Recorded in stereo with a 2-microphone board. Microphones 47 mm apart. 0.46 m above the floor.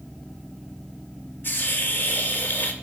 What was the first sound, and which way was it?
A hiss, 45° left (ahead or behind).